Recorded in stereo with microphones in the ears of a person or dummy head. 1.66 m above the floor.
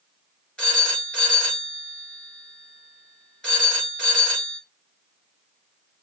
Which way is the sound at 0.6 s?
10° left (ahead or behind).